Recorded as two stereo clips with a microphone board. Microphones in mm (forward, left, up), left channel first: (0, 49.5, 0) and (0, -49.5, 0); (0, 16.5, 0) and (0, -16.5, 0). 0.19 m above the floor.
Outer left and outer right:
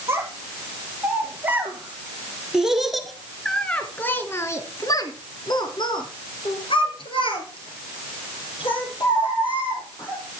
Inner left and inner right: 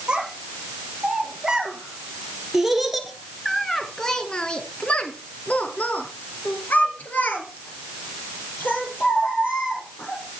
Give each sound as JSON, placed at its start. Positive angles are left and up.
{"t": 0.1, "sound": "a child speaking", "side_deg": -30, "distance_m": 3.5}